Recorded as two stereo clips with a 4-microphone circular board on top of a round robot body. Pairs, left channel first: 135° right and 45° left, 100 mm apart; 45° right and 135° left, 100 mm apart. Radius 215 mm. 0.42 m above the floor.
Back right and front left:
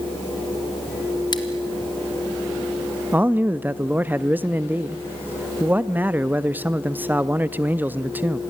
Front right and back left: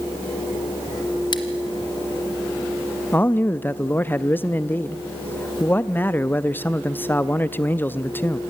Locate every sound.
1.3 s scissors: 90° right, 1.0 m
3.1 s a man speaking: straight ahead, 0.7 m